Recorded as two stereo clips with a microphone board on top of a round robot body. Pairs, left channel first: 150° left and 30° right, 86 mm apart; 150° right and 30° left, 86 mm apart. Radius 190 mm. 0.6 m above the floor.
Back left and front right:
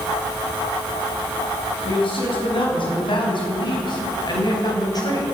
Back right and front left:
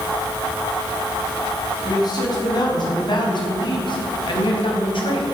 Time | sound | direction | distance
1.9 | a man speaking | 165° left | 5.5 m